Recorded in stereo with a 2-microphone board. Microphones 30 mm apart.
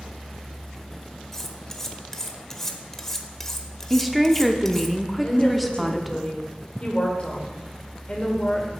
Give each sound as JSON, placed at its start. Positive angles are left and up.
{"t": 1.3, "sound": "cutlery clinking", "side_deg": 15, "distance_m": 0.9}
{"t": 3.9, "sound": "a woman speaking", "side_deg": 0, "distance_m": 0.8}
{"t": 5.2, "sound": "a woman speaking", "side_deg": 40, "distance_m": 2.0}